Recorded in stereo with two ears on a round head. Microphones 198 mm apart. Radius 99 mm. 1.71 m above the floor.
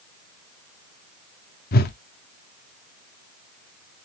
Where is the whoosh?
40° left (ahead or behind), 0.6 m.